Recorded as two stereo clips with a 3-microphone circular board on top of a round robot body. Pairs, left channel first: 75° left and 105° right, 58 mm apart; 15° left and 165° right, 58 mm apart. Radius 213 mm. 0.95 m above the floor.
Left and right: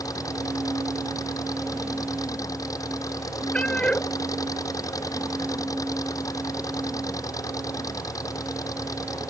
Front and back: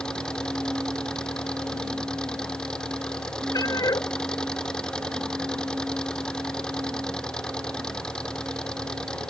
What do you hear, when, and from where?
0.0 s an engine running: 90° left
3.5 s a cat meowing: 5° left